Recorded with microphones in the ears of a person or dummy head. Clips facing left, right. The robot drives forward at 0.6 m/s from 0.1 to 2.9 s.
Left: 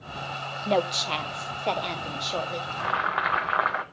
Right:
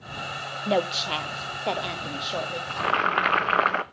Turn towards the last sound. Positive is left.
turn(degrees=-40)  # may be behind; listen again after turning